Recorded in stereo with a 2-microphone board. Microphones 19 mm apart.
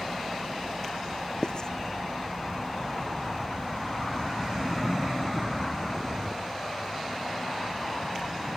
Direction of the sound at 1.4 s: 40° left (ahead or behind).